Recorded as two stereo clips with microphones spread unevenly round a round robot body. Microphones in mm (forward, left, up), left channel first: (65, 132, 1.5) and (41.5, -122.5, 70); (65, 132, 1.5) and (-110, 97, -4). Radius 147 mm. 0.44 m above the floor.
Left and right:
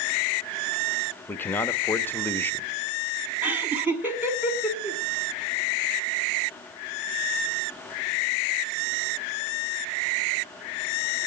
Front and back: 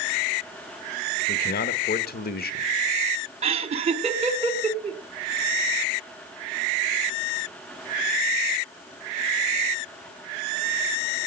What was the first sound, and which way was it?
A man speaking, 15° left.